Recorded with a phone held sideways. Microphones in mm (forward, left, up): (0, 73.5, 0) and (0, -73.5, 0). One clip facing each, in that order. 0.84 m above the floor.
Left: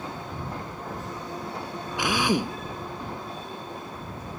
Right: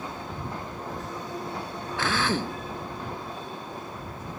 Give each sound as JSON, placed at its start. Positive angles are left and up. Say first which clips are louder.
{"t": 2.0, "sound": "a drill", "louder": "left 3 dB", "side_deg": 15}